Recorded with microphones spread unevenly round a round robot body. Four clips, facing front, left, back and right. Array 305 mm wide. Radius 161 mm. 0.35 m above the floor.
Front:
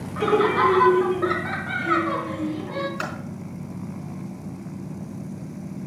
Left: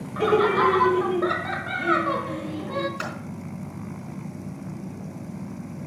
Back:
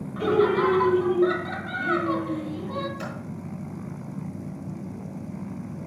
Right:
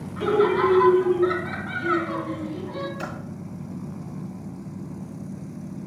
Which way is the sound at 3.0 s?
45° left.